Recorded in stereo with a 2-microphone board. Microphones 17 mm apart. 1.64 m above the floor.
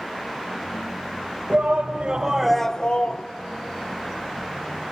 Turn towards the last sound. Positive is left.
turn(degrees=60)  # may be behind; listen again after turning